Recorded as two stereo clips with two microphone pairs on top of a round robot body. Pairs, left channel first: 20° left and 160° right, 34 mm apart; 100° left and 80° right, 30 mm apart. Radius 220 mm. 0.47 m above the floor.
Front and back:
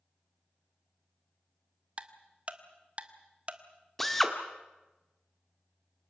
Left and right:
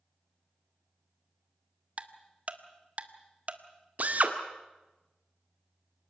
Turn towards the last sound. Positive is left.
turn(degrees=-60)